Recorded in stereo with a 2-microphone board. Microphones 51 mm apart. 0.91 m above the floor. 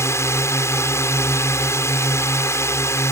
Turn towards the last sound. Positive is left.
turn(degrees=60)  # may be behind; listen again after turning